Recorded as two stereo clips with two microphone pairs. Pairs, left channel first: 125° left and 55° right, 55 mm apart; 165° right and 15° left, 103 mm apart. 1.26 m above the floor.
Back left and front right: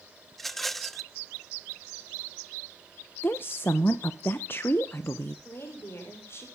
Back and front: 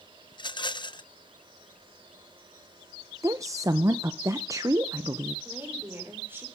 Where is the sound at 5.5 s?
85° left, 5 m.